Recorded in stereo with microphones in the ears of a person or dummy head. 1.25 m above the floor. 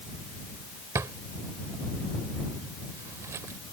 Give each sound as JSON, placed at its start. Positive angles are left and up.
{"t": 0.9, "sound": "a drawer", "side_deg": -20}